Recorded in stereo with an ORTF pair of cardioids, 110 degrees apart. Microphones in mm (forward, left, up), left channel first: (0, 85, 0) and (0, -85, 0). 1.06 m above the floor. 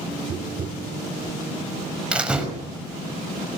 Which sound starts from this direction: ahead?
A door slam, at 2.1 s.